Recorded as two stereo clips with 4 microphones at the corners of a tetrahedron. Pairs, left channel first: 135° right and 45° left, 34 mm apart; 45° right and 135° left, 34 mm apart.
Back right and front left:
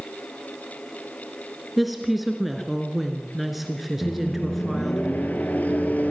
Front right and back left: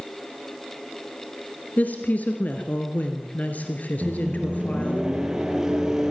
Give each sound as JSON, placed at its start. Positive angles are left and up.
{"t": 1.8, "sound": "a woman speaking", "azimuth_deg": -45, "distance_m": 2.0}
{"t": 4.0, "sound": "a microwave", "azimuth_deg": -155, "distance_m": 2.5}